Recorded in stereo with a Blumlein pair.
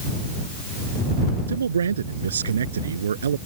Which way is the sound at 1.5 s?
70° right.